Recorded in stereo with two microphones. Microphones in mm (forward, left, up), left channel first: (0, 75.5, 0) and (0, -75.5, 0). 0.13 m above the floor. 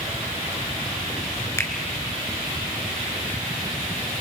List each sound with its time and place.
1.6 s a finger snap: 20° left (ahead or behind), 1.8 m